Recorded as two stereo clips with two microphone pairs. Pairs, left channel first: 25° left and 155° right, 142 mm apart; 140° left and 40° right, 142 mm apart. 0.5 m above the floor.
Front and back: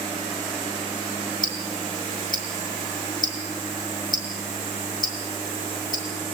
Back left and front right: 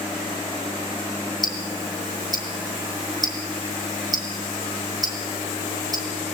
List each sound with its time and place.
1.4 s ticking: 20° left, 2.5 m